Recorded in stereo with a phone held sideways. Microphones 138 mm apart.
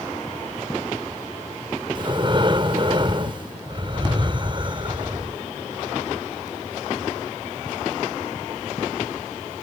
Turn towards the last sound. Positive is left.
turn(degrees=-35)  # may be behind; listen again after turning